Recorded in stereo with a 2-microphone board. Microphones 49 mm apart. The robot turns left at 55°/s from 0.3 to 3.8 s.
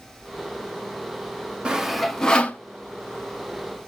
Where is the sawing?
20° right (ahead or behind), 0.8 m; by 2.6 s 30° left (ahead or behind), 0.8 m.